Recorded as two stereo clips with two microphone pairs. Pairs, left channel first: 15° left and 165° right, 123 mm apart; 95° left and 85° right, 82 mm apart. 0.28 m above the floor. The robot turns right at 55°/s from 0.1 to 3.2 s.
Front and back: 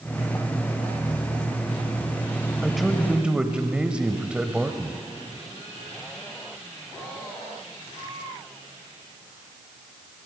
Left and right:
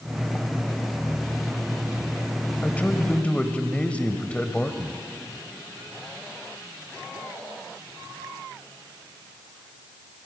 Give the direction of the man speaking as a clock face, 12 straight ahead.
9 o'clock.